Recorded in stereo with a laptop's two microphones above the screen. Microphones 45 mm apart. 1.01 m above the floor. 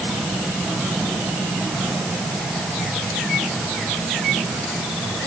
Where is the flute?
I don't hear a flute.